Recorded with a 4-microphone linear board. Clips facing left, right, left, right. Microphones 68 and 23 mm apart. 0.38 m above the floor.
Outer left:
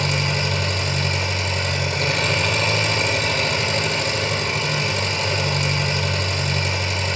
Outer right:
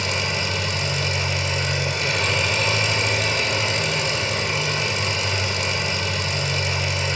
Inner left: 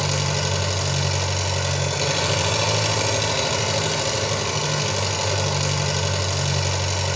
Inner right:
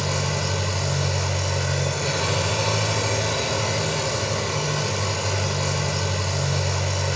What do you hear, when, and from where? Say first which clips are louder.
0.0 s an engine running: outer left 2 dB, inner left 2 dB; 45° left (ahead or behind), 4.5 m